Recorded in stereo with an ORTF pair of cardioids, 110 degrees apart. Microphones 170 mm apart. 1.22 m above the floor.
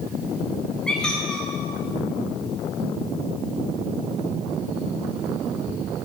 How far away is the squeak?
About 5.5 m.